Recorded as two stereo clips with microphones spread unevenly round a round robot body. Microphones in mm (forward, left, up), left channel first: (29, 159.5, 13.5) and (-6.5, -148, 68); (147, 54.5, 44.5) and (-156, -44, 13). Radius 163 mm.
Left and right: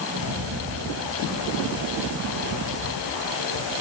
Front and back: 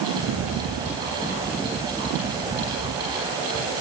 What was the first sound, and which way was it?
A rattle, 105° right.